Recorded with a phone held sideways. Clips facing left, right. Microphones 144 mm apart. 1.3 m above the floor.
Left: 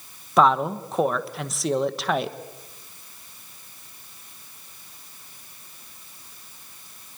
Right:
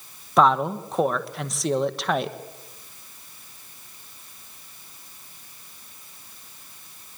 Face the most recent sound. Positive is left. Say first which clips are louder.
# even
turn(degrees=0)  # may be behind; listen again after turning